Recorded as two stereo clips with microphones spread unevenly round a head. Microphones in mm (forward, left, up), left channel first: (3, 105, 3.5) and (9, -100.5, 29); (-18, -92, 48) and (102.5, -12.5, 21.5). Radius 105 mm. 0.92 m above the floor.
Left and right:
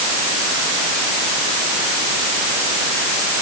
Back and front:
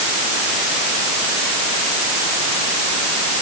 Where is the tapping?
I don't hear tapping.